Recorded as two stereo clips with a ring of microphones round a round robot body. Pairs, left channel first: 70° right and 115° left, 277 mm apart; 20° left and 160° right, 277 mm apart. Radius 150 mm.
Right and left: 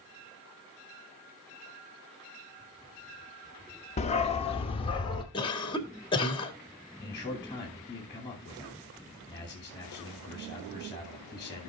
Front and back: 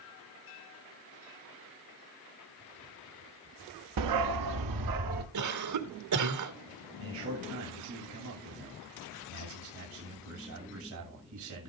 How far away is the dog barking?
About 0.7 m.